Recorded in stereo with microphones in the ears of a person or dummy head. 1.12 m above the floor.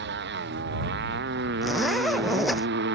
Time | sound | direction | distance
0.0 | a motorcycle | 55° right (ahead or behind) | ?
1.6 | a zipper | centre (ahead or behind) | ?